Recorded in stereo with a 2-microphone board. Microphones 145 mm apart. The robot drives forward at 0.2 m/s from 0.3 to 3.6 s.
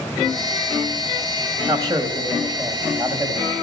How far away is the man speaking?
About 1.1 m.